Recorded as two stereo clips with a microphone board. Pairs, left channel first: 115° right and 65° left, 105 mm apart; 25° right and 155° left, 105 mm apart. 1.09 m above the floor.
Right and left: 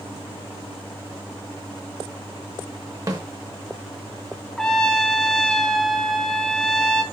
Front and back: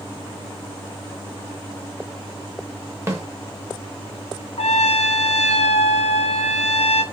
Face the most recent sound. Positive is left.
turn(degrees=-30)